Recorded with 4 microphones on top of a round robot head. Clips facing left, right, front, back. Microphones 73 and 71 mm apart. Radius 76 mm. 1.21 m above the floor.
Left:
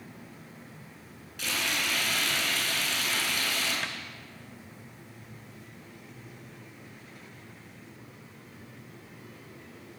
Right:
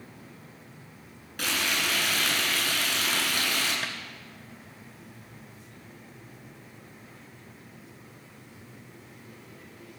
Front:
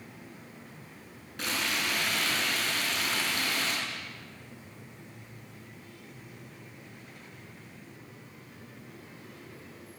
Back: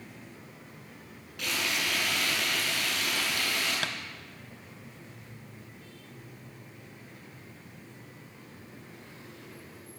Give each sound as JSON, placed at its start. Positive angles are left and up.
{"t": 1.4, "sound": "frying", "azimuth_deg": -60, "distance_m": 9.0}
{"t": 3.8, "sound": "tapping", "azimuth_deg": -175, "distance_m": 1.2}